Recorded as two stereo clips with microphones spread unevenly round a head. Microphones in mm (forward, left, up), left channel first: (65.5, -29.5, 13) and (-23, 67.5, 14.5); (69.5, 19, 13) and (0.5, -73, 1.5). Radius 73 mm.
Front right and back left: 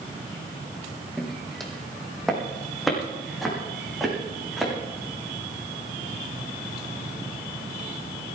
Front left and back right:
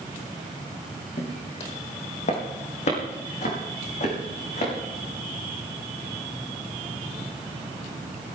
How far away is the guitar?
I don't hear a guitar.